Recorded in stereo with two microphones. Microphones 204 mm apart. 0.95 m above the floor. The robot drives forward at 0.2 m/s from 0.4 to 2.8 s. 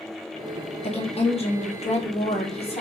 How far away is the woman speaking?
About 0.7 m.